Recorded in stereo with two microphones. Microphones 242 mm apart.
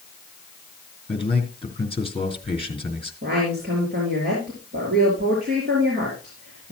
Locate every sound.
1.1 s a man speaking: 20° left (ahead or behind), 4 m
3.2 s a woman speaking: 40° right (ahead or behind), 5 m